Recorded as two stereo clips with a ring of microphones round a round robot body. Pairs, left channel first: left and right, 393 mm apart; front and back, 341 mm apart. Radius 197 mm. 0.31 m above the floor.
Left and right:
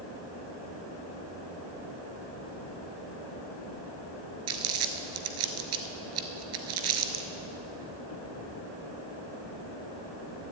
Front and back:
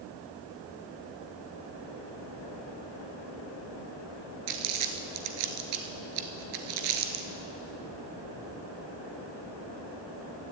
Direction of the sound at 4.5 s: 145° right.